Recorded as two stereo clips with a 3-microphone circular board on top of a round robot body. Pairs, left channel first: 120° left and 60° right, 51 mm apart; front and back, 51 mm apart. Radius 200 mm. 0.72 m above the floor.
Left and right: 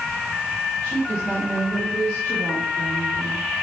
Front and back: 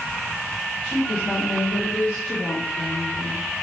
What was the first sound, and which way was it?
A woman speaking, 40° left.